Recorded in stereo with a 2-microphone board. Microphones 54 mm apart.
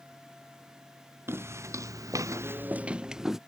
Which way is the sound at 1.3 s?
50° right (ahead or behind).